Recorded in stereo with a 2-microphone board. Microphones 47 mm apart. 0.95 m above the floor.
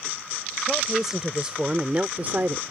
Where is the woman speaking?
5° right (ahead or behind); by 2.7 s 55° right (ahead or behind).